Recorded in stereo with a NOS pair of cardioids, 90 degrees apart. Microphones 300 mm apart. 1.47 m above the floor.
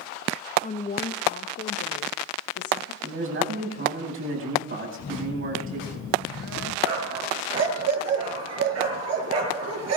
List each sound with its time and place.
0.6 s a woman speaking: 25° left, 1.1 m; by 2.9 s 55° left, 2.5 m
3.0 s a man speaking: 45° right, 9.5 m
5.0 s a phone buzzing: 55° left, 2.5 m
6.8 s a dog barking: 55° right, 8 m